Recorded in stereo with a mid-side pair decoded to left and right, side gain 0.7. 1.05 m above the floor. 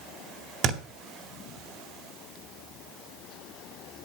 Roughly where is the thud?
Ahead right.